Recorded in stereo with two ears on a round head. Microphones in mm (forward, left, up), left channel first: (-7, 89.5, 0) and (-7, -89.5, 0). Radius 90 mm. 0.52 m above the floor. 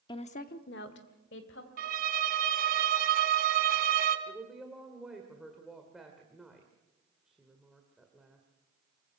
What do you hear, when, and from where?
0.1 s a woman speaking: 20° left (ahead or behind), 0.9 m; by 1.7 s 65° left (ahead or behind), 2.5 m
1.8 s a violin: 45° right (ahead or behind), 1.2 m
4.3 s a woman speaking: centre (ahead or behind), 1.8 m